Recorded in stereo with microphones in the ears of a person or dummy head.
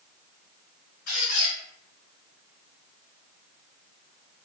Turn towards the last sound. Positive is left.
turn(degrees=40)  # may be behind; listen again after turning